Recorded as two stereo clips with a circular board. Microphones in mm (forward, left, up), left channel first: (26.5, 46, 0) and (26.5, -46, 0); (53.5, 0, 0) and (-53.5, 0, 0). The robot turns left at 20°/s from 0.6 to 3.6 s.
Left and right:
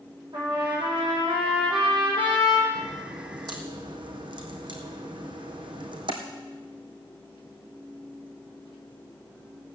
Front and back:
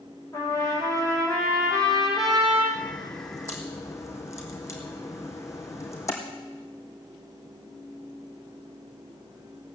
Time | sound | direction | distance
0.3 | a trumpet | 60° right | 5 m
2.8 | a crack | 45° right | 3 m